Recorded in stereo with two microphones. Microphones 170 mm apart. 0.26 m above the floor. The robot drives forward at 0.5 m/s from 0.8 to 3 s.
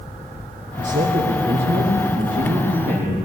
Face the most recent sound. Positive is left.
turn(degrees=-45)  # may be behind; listen again after turning